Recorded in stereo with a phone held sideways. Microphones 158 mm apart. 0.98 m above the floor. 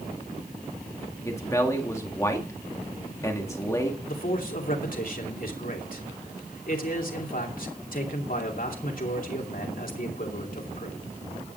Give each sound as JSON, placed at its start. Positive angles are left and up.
{"t": 1.2, "sound": "a man speaking", "side_deg": 20, "distance_m": 2.0}
{"t": 4.1, "sound": "a man speaking", "side_deg": 65, "distance_m": 2.5}